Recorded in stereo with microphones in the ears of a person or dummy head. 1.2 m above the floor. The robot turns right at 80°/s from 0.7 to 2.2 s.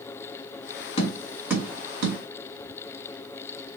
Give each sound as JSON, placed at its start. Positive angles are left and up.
{"t": 1.0, "sound": "tapping", "side_deg": 35, "distance_m": 1.3}